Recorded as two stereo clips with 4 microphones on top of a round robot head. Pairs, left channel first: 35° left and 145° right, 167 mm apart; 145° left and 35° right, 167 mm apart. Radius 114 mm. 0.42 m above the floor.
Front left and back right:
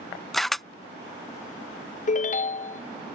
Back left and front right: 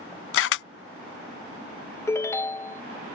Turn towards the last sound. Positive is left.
turn(degrees=70)